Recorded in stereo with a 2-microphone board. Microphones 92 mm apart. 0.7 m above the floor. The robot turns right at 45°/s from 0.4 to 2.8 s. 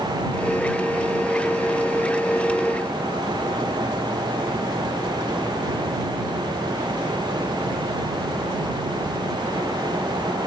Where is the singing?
I don't hear singing.